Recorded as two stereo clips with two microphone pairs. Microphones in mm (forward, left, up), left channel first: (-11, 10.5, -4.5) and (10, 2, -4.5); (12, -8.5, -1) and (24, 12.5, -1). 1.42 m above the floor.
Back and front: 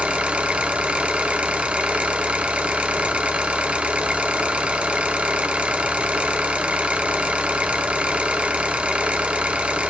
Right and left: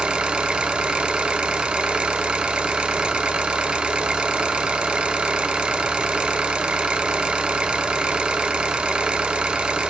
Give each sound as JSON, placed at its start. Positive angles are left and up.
{"t": 0.0, "sound": "an engine running", "azimuth_deg": 10, "distance_m": 0.8}